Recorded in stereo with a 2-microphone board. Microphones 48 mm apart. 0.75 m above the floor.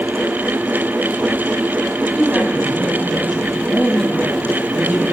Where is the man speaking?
10° left (ahead or behind), 7 m.